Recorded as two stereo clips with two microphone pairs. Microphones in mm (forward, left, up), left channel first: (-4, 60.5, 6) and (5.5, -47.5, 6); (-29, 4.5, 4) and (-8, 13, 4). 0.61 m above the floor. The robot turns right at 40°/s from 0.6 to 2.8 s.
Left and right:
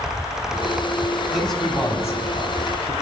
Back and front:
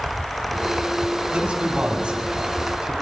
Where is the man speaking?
Straight ahead, 5 m; by 2.9 s 60° left, 5 m.